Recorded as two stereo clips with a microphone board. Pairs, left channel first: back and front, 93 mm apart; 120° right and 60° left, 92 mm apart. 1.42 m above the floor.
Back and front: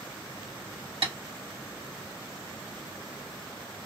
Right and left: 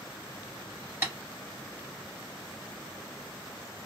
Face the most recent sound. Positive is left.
turn(degrees=-10)